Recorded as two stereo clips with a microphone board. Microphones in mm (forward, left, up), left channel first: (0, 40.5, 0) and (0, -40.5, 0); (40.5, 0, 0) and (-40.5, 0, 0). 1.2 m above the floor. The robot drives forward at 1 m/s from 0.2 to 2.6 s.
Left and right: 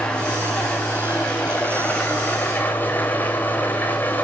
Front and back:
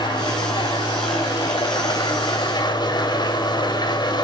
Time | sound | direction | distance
0.0 | an engine running | 15° left | 6 m